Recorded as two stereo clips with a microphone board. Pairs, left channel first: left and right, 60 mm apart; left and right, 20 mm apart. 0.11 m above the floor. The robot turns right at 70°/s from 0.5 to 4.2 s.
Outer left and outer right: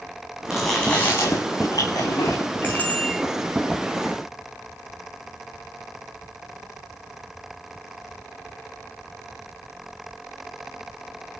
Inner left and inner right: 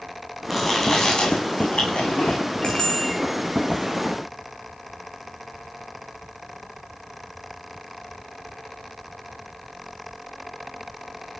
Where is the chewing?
10° right, 9 m; by 2.4 s 125° left, 9 m.